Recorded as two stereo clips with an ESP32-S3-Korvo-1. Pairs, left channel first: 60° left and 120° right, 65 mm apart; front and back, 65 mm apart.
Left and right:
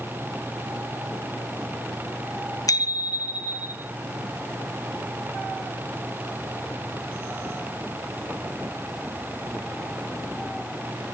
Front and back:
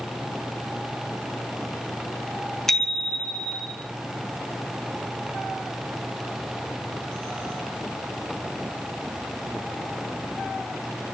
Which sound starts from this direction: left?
A bicycle bell, at 2.7 s.